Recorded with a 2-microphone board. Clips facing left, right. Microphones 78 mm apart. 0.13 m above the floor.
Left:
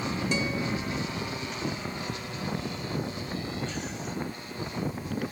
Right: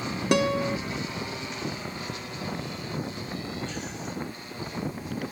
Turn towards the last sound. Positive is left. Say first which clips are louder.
# right 9 dB
turn(degrees=-70)  # may be behind; listen again after turning